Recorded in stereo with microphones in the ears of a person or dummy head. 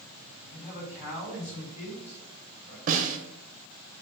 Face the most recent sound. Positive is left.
turn(degrees=-40)  # may be behind; listen again after turning